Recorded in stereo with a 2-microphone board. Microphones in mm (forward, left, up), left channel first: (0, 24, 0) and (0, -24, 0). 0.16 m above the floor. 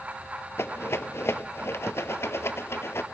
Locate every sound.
0.6 s a rattle: 70° left (ahead or behind), 0.6 m